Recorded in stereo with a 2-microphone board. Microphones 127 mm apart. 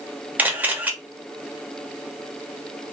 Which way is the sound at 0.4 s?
15° right (ahead or behind).